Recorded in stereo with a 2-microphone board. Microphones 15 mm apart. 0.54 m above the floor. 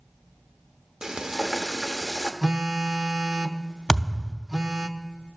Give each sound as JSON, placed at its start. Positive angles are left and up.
{"t": 1.0, "sound": "frying", "side_deg": -50, "distance_m": 0.9}
{"t": 2.4, "sound": "a phone buzzing", "side_deg": -50, "distance_m": 0.5}
{"t": 3.9, "sound": "a thud", "side_deg": 60, "distance_m": 0.6}